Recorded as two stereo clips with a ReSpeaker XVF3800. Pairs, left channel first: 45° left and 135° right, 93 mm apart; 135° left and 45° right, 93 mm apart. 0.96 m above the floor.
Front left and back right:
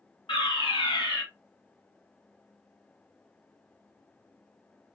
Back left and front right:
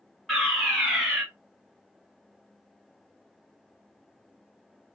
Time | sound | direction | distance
0.3 | a fire alarm | 50° left | 2.5 m